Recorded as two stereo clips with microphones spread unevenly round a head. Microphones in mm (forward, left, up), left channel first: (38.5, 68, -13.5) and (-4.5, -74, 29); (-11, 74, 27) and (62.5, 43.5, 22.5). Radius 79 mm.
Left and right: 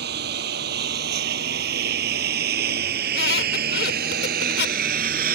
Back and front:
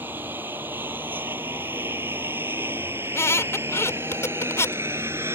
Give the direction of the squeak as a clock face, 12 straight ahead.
9 o'clock.